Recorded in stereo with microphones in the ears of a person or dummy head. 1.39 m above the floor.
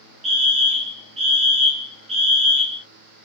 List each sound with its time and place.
0.2 s a fire alarm: 35° right (ahead or behind), 0.8 m